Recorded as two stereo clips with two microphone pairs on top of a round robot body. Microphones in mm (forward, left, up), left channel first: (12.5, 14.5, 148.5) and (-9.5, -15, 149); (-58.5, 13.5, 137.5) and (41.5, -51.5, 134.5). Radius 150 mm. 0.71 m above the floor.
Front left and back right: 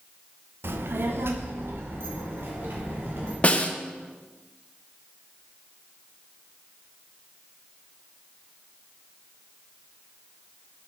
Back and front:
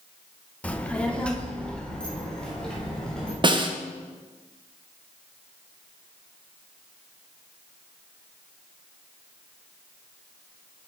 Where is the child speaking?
135° right, 0.8 m; by 3.3 s 130° right, 3 m.